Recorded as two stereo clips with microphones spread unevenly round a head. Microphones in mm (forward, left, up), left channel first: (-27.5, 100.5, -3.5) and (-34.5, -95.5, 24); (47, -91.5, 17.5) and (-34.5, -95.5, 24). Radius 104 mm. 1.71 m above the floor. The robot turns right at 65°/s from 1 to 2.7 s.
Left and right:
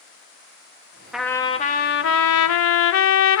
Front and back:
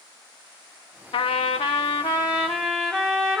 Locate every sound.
1.1 s a trumpet: 5° right, 0.8 m; by 3.4 s 95° left, 0.8 m